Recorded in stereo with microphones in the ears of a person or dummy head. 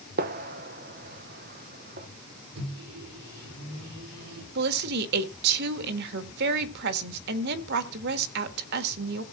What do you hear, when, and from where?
0.2 s a gunshot: 50° right (ahead or behind), 1.0 m
2.5 s a microwave: 75° right (ahead or behind), 3 m
4.5 s a woman speaking: 60° right (ahead or behind), 1.4 m